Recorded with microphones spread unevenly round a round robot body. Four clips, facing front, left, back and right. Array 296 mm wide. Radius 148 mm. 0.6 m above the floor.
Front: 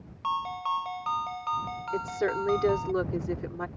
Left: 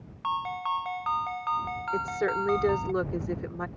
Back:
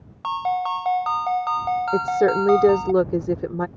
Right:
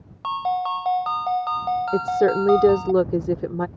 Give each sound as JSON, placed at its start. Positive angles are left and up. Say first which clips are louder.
{"t": 0.2, "sound": "a ringtone", "louder": "right 7 dB, back 7 dB", "azimuth_deg": -120}
{"t": 1.9, "sound": "a woman speaking", "louder": "right 8 dB, back 9 dB", "azimuth_deg": -130}